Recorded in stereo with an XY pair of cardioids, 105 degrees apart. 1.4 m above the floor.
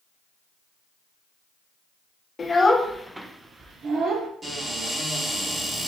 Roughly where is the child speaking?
Ahead left.